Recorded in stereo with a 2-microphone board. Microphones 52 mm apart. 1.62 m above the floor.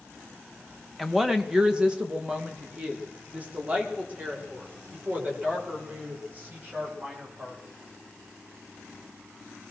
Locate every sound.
1.0 s a woman speaking: 5° right (ahead or behind), 1.8 m; by 7.6 s 35° right (ahead or behind), 10 m